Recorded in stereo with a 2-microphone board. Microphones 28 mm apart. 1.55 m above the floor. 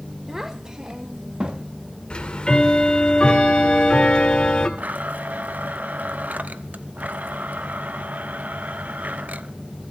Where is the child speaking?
15° right (ahead or behind), 1.4 m; by 1.7 s 40° right (ahead or behind), 2 m.